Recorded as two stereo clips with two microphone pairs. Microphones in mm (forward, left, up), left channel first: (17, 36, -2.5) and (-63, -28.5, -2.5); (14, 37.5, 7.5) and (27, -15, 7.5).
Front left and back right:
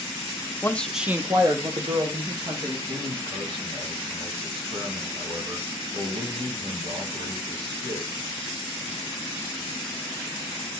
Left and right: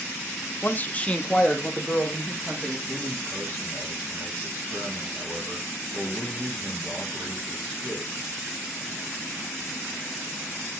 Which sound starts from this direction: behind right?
A man speaking, at 2.9 s.